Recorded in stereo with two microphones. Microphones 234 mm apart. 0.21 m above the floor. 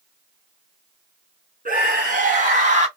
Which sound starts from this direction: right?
A scream, at 1.6 s.